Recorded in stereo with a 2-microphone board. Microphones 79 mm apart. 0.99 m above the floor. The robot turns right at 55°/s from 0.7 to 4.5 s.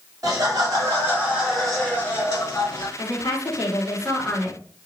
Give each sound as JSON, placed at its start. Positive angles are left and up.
{"t": 0.2, "sound": "laughter", "azimuth_deg": -50, "distance_m": 2.0}
{"t": 3.0, "sound": "a woman speaking", "azimuth_deg": 85, "distance_m": 1.9}